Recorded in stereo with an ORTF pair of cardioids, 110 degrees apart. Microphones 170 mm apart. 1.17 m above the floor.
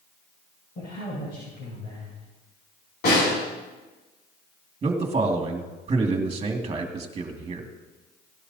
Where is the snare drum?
60° left, 6 m.